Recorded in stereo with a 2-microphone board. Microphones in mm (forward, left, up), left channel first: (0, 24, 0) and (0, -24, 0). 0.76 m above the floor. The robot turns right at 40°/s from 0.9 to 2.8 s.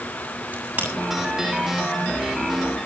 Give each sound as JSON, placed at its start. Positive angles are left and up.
{"t": 0.5, "sound": "a crack", "side_deg": -25, "distance_m": 7.0}